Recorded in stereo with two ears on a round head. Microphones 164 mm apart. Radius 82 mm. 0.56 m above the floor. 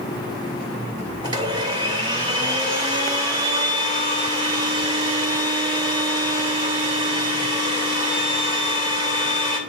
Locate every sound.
1.2 s a blender: 25° right (ahead or behind), 1.8 m